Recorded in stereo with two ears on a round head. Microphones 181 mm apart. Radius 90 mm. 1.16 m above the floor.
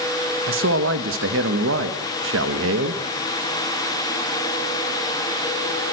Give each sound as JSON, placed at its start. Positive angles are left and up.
{"t": 0.5, "sound": "a man speaking", "side_deg": -75, "distance_m": 1.5}